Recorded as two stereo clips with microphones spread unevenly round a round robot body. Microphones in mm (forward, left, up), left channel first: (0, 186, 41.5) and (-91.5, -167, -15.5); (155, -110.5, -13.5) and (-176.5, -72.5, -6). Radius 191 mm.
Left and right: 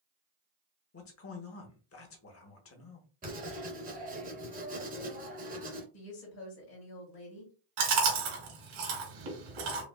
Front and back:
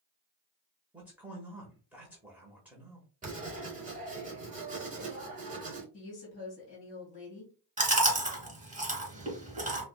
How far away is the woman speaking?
About 1.9 m.